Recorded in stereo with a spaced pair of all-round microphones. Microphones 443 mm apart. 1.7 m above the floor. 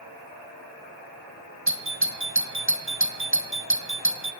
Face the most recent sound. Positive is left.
turn(degrees=-30)  # may be behind; listen again after turning